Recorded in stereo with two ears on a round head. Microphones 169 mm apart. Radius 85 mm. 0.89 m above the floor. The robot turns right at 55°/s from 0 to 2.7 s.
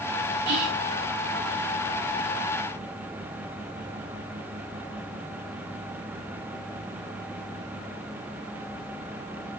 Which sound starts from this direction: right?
Whispering, at 0.5 s.